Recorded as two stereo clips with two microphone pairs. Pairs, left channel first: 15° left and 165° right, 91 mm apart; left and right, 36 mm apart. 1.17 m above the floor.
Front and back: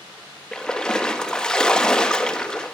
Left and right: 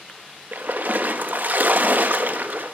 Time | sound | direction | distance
0.5 | a splash | 65° right | 1.3 m